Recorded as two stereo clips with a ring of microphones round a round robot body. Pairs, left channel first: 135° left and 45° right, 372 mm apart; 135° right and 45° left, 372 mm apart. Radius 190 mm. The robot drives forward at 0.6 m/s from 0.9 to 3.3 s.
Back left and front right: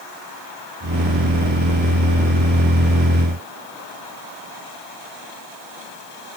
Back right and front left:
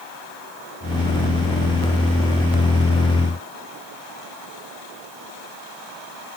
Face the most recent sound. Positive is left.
No sound to turn to.